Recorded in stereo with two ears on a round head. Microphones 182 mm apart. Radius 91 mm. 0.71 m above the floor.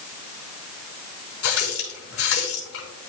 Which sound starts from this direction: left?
A running tap, at 1.4 s.